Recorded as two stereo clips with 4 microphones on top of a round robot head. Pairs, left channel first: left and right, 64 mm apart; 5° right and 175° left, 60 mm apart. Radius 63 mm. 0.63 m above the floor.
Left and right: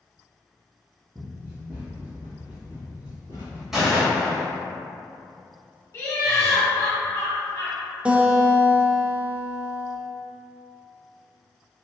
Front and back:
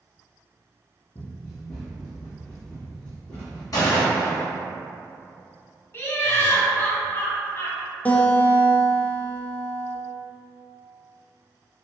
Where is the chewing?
I don't hear chewing.